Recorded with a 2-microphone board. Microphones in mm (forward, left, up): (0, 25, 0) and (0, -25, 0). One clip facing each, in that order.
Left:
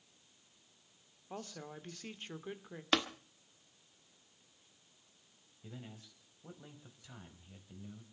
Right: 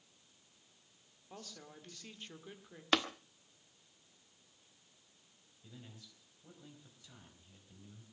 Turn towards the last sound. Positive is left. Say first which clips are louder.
# left 5 dB
turn(degrees=30)  # may be behind; listen again after turning